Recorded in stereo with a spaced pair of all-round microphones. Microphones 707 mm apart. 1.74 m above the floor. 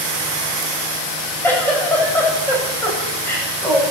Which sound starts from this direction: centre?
A giggle, at 1.4 s.